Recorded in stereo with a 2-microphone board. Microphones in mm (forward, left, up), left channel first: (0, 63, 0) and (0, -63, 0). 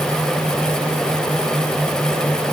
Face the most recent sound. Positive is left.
No sound to turn to.